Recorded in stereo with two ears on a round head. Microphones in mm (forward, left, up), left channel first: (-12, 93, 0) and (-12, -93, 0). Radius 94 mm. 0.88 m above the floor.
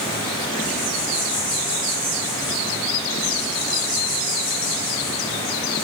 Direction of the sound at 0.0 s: 25° left (ahead or behind).